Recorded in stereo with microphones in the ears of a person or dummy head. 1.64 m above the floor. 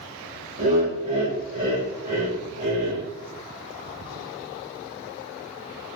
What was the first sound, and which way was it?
Laughter, 40° right (ahead or behind).